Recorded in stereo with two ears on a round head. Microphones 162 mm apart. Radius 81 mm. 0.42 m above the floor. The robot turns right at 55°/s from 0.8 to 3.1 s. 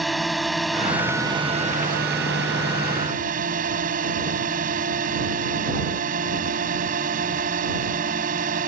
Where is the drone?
Straight behind; by 8.7 s 55° right.